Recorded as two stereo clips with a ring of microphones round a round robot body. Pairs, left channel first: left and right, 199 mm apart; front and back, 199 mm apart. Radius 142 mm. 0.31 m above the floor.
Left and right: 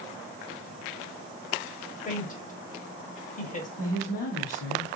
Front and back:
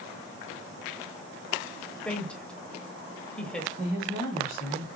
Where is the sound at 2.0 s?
80° left, 1.2 m.